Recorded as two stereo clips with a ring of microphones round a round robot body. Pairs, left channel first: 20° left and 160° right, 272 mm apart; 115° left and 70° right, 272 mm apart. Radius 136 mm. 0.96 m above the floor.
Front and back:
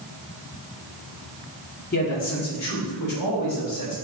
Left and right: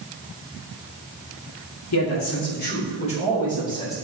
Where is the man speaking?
80° left, 1.8 m; by 4.0 s 35° left, 4 m.